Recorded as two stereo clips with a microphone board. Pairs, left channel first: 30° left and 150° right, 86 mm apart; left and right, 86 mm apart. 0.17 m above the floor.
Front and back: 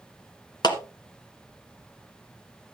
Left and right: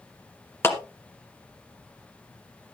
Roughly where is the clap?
Ahead left.